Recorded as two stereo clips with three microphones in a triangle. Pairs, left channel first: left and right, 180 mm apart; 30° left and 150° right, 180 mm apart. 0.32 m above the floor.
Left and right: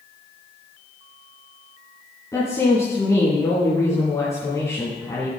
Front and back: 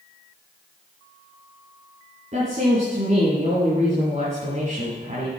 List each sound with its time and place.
2.3 s a woman speaking: 165° left, 3.5 m